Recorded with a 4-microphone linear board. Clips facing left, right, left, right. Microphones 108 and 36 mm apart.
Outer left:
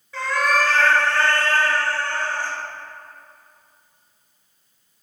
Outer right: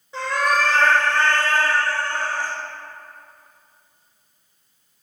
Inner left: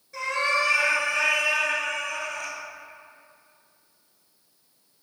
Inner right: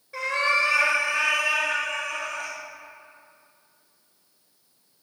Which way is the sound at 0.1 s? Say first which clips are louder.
Even, inner right 1 dB; 25° right (ahead or behind).